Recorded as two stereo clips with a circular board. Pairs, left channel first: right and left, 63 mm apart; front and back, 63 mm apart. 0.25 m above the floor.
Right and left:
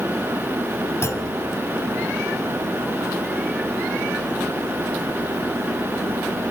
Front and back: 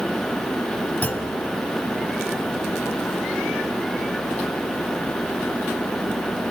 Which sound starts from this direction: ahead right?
A clunk, at 1.0 s.